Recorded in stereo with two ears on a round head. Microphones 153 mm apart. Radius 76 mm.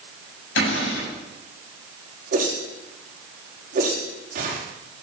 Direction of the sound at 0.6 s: 80° left.